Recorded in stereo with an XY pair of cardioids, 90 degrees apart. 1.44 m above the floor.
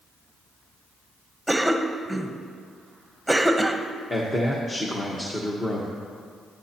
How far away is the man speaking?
About 1.4 m.